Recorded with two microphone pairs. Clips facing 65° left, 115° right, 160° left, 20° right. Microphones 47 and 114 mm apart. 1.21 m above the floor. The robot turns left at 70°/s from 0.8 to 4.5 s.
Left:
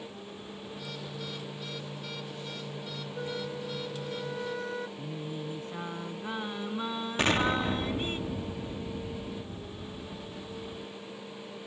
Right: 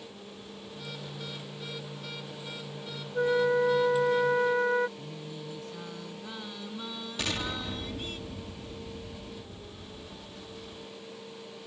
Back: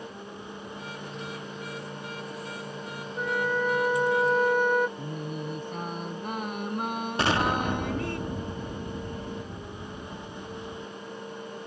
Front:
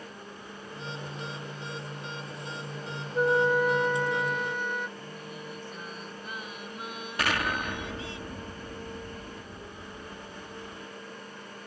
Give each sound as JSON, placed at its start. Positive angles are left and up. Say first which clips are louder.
{"t": 3.1, "sound": "a flute", "louder": "right 13 dB, front 5 dB", "azimuth_deg": -65}
{"t": 5.0, "sound": "singing", "louder": "left 4 dB, back 7 dB", "azimuth_deg": 125}
{"t": 7.2, "sound": "an explosion", "louder": "left 8 dB, back 4 dB", "azimuth_deg": 105}